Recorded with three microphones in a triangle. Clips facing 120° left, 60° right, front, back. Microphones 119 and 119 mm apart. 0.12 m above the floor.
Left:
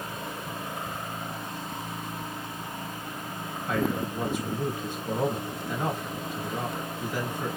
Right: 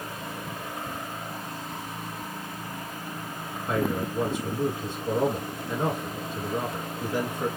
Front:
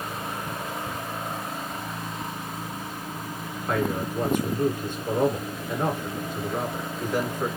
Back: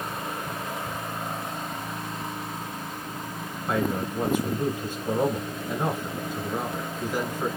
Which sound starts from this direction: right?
A man speaking, at 3.7 s.